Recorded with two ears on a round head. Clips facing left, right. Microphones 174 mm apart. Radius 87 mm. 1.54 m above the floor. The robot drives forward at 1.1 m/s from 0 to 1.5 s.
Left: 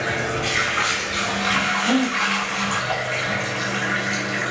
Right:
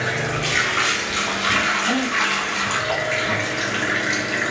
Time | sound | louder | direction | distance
0.0 | running water | even | 35° right (ahead or behind) | 2 m
1.8 | a gasp | left 5 dB | 30° left (ahead or behind) | 2 m